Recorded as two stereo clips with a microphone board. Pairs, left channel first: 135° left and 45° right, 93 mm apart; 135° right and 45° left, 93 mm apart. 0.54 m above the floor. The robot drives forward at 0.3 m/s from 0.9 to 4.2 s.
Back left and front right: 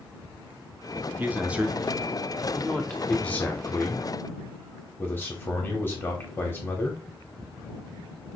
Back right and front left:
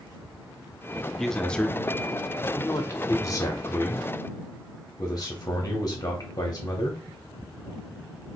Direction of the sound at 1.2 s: 55° right.